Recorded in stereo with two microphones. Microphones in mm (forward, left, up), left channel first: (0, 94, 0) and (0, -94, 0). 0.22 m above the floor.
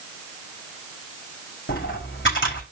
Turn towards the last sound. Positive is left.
turn(degrees=85)